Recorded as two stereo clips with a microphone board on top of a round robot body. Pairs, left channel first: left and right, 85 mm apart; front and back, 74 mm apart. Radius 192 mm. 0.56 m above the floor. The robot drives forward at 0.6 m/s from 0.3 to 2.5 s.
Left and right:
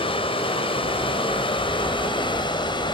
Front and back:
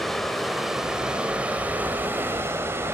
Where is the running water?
85° left, 2 m; by 3.0 s 120° left, 2.5 m.